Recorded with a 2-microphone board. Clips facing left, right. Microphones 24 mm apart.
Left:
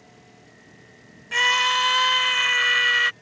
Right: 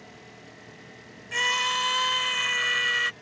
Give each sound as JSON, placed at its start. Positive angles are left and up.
{"t": 0.0, "sound": "an engine running", "side_deg": -15}
{"t": 1.3, "sound": "a scream", "side_deg": 20}